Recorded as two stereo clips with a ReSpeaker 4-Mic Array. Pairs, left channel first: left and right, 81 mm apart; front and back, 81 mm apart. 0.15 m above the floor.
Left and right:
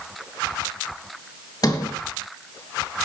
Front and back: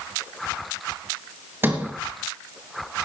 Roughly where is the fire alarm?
No fire alarm in this recording.